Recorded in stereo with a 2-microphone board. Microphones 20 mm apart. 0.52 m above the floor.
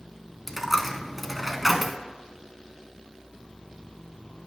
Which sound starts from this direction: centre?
A dropped coin, at 0.5 s.